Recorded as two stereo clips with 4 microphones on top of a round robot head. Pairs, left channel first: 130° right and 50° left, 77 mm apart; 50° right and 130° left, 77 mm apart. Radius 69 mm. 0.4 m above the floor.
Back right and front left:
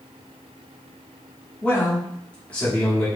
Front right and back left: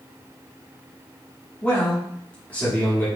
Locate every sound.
1.6 s a man speaking: 85° right, 1.2 m